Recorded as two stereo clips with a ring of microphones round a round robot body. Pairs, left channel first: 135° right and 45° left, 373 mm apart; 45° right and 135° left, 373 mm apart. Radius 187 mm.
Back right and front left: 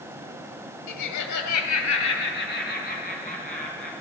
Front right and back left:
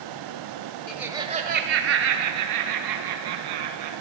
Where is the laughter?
125° right, 1.3 m; by 4.0 s 140° left, 3.5 m.